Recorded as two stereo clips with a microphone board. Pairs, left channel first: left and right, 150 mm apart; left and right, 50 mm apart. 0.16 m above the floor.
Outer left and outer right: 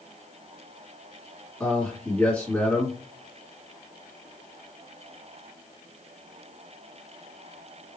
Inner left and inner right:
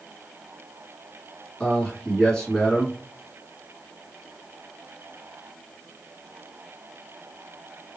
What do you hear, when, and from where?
1.6 s a man speaking: 10° left (ahead or behind), 1.9 m